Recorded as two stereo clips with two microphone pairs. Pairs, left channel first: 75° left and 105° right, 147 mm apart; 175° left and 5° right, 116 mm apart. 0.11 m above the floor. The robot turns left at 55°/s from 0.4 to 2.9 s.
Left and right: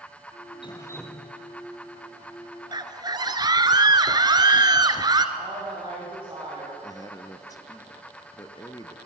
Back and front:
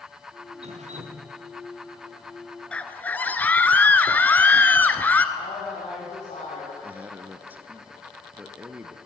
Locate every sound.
0.6 s dripping: 15° left, 2.5 m; by 1.2 s 20° right, 2.5 m
2.7 s a scream: 110° right, 1.3 m; by 5.2 s 120° right, 1.3 m
5.3 s a woman speaking: 175° right, 9 m
6.8 s a man speaking: 50° left, 1.6 m